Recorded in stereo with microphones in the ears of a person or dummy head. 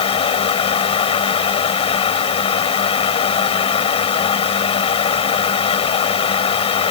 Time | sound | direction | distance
0.0 | a fan | 40° left (ahead or behind) | ?